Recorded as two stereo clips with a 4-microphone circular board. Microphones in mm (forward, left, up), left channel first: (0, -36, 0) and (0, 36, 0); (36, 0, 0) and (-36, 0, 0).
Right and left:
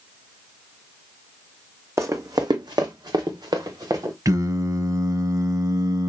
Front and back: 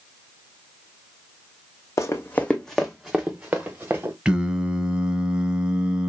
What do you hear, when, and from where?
2.0 s running footsteps: 40° left, 0.9 m; by 4.2 s 120° left, 2.0 m
4.2 s singing: 105° left, 0.8 m